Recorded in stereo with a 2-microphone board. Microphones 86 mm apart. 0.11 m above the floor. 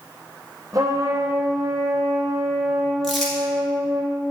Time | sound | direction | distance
0.7 | a trumpet | 40° right (ahead or behind) | 0.8 m
3.0 | crumpling | centre (ahead or behind) | 1.7 m